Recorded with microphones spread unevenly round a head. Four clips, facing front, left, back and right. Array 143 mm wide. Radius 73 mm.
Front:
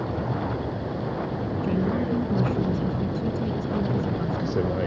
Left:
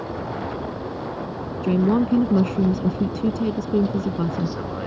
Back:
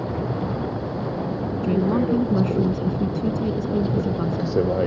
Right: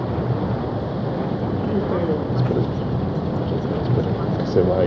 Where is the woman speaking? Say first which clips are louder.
Left 4 dB, back 5 dB; 120° left.